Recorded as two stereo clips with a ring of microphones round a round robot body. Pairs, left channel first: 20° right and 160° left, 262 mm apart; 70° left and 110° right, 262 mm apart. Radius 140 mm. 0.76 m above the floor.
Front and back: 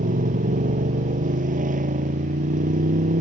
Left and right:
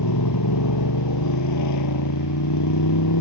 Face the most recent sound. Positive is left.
turn(degrees=95)